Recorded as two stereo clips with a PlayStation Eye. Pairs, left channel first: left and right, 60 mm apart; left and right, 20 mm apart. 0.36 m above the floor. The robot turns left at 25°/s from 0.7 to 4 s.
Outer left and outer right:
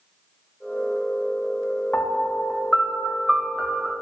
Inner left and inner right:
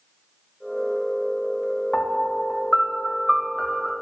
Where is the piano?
30° left, 0.8 m; by 3.9 s 20° right, 0.8 m.